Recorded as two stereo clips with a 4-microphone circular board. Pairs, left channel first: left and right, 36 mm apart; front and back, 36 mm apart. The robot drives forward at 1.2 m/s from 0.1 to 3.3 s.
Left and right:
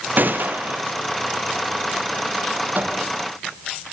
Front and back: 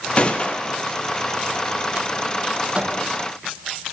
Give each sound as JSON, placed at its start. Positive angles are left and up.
{"t": 0.2, "sound": "a gunshot", "azimuth_deg": -60, "distance_m": 4.0}
{"t": 2.8, "sound": "a microwave", "azimuth_deg": -125, "distance_m": 5.0}